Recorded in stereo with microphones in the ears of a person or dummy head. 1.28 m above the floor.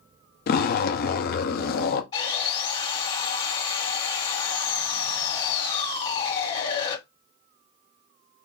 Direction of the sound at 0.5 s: 50° left (ahead or behind).